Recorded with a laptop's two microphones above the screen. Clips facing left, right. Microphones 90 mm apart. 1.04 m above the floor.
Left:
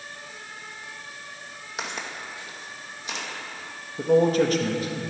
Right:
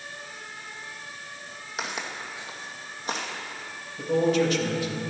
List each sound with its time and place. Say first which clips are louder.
1.8 s footsteps: even; centre (ahead or behind), 1.8 m; by 3.3 s 45° right (ahead or behind), 2.5 m
4.0 s a man speaking: left 3 dB; 40° left (ahead or behind), 1.4 m